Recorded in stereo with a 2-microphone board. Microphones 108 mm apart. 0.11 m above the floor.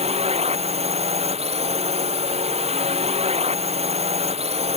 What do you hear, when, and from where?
0.0 s a drone: 75° right (ahead or behind)